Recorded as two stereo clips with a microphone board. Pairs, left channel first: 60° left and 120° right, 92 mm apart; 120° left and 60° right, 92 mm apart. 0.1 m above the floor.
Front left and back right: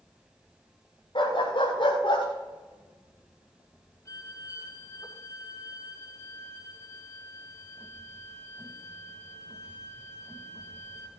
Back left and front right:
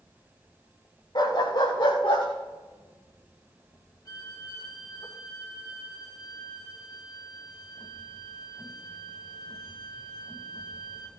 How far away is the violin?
About 2 m.